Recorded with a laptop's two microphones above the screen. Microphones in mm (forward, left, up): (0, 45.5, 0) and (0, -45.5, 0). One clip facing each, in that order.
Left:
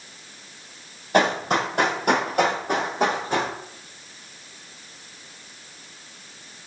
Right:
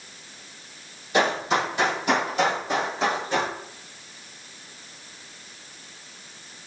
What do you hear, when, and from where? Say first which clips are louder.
1.1 s running footsteps: left 2 dB; 50° left (ahead or behind), 1.5 m